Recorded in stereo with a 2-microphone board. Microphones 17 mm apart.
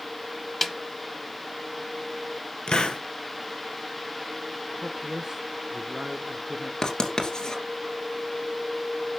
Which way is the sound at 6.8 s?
45° left (ahead or behind).